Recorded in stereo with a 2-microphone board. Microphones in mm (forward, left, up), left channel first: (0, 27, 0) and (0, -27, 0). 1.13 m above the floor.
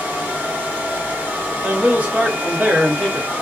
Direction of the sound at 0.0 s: 35° right (ahead or behind).